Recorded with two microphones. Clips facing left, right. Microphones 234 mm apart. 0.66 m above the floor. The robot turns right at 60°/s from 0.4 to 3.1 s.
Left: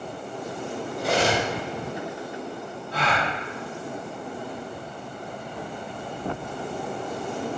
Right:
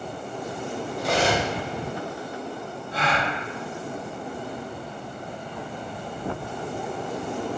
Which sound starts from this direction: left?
A gasp, at 2.9 s.